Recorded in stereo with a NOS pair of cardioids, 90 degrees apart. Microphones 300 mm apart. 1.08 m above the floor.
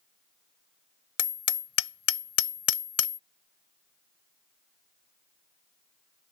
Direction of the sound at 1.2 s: 50° left.